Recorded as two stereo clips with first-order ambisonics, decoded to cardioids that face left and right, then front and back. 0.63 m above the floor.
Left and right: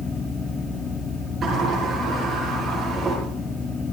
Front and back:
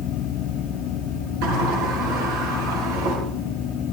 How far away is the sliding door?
About 9 m.